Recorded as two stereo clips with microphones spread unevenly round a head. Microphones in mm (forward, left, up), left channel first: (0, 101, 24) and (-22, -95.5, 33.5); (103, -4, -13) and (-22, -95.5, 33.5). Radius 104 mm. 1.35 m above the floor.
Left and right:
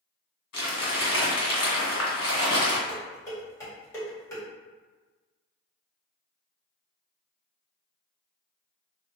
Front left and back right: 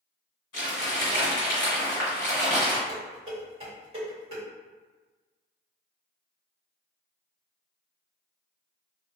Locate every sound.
0.5 s crumpling: 85° left, 1.8 m
2.9 s dishes clattering: 160° left, 1.5 m